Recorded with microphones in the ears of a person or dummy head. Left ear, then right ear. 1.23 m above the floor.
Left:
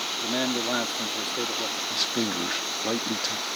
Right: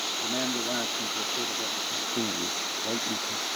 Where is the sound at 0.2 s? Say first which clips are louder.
Left 2 dB; 35° left (ahead or behind).